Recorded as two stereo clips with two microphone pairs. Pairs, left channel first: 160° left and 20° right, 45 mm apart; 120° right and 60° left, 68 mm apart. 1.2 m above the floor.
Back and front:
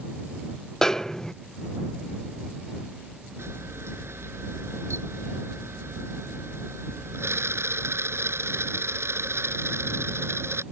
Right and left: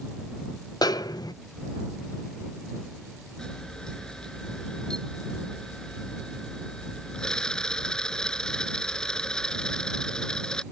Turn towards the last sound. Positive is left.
turn(degrees=-40)